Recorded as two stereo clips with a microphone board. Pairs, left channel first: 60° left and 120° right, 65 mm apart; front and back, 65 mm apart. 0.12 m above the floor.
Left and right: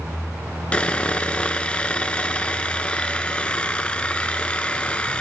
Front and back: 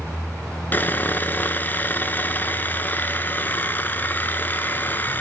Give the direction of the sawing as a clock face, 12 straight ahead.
12 o'clock.